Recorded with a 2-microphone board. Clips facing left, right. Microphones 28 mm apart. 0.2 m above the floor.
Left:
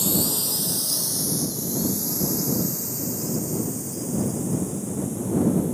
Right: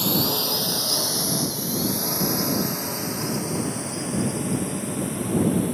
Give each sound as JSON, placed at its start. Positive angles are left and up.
{"t": 0.0, "sound": "a drone", "side_deg": -30}